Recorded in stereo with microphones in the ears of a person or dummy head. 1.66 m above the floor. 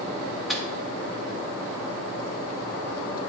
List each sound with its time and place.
0.5 s a microwave: centre (ahead or behind), 0.6 m